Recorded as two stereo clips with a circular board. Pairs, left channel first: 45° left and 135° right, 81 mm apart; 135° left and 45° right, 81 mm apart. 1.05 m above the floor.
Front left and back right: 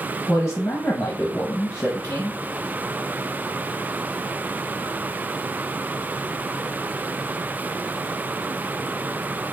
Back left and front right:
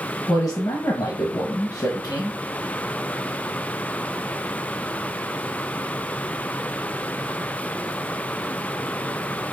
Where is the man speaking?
105° left, 0.8 m.